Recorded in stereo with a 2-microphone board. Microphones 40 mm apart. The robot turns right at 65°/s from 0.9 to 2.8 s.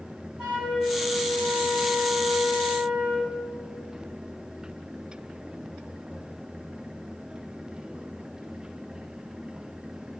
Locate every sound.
0.4 s a flute: 20° right (ahead or behind), 1.6 m; by 3.3 s 10° left (ahead or behind), 1.6 m